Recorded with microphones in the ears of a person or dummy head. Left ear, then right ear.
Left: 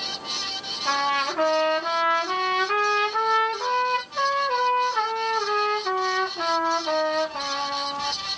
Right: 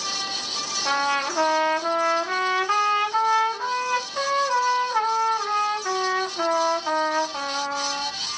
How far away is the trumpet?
About 2.5 m.